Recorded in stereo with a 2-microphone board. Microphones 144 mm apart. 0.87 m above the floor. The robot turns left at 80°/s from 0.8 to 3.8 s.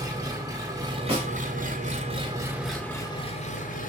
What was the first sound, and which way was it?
An engine running, 30° right.